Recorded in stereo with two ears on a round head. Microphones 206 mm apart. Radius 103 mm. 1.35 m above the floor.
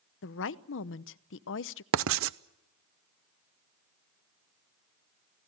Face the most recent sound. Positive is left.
turn(degrees=-60)  # may be behind; listen again after turning